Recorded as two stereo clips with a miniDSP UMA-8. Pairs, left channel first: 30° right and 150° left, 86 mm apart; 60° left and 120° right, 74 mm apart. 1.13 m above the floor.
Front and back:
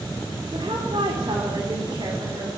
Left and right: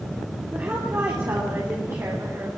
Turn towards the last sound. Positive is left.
turn(degrees=-165)